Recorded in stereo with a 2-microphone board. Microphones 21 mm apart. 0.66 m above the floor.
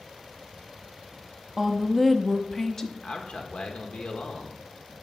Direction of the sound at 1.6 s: 25° right (ahead or behind).